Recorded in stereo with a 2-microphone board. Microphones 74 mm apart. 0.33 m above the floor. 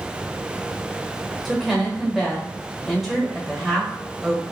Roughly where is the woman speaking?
Centre.